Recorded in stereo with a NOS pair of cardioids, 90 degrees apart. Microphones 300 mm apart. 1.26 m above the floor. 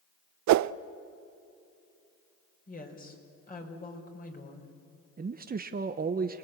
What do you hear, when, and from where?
0.5 s a whoosh: 65° right, 0.5 m
2.7 s a woman speaking: 30° left, 5 m
5.2 s a man speaking: 30° right, 1.1 m